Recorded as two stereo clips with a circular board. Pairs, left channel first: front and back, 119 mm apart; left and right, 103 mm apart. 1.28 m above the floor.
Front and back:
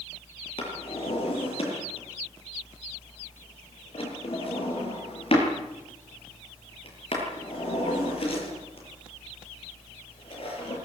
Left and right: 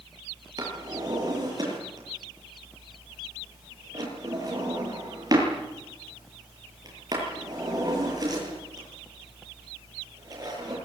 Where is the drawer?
40° right, 9.5 m.